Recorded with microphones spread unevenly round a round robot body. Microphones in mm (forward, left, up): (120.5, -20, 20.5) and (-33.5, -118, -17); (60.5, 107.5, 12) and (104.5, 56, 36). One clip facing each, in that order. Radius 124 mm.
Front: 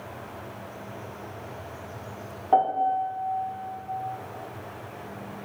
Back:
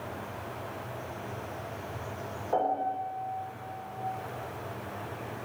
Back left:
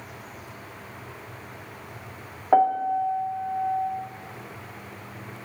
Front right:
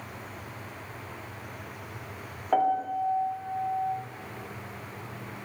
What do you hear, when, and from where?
2.5 s a piano: 70° left, 0.7 m